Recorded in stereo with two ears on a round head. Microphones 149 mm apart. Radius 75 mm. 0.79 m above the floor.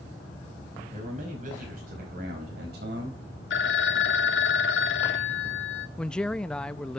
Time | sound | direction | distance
0.9 | a man speaking | 40° right (ahead or behind) | 5 m
3.5 | a phone ringing | 80° left | 1.1 m
6.0 | a man speaking | 5° left (ahead or behind) | 0.5 m